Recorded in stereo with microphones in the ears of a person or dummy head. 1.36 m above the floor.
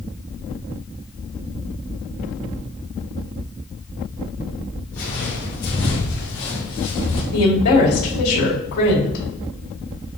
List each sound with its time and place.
4.9 s footsteps: 10° left (ahead or behind), 1.5 m; by 7.2 s 25° left (ahead or behind), 2.5 m
7.3 s a woman speaking: 35° left (ahead or behind), 2 m